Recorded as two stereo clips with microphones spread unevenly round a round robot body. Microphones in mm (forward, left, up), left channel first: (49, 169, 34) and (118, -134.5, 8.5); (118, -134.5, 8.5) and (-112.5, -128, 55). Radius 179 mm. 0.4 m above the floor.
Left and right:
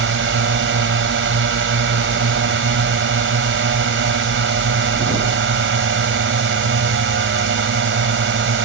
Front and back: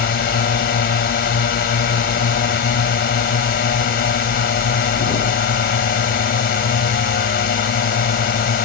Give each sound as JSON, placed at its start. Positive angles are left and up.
{"t": 0.0, "sound": "a drone", "azimuth_deg": -35}